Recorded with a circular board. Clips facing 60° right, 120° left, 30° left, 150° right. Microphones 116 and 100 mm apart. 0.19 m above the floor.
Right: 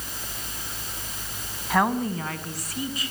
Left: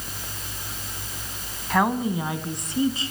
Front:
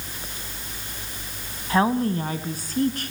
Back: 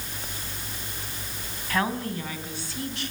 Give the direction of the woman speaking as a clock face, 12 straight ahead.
11 o'clock.